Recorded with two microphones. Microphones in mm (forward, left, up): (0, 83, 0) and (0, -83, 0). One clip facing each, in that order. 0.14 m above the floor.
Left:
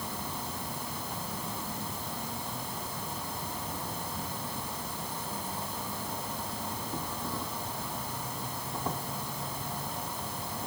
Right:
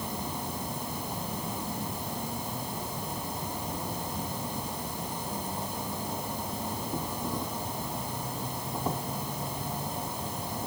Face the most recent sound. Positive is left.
turn(degrees=-15)  # may be behind; listen again after turning